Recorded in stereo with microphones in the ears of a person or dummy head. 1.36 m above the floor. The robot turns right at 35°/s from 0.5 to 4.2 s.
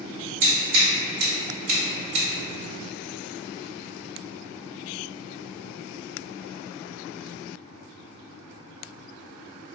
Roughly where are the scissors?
Right.